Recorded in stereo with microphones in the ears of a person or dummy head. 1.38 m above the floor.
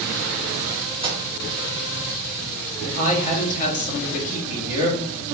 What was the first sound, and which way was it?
A microwave, 25° right (ahead or behind).